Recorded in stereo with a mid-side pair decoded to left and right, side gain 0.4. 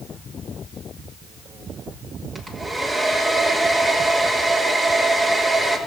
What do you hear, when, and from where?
2.4 s a hair dryer: 30° right, 3.5 m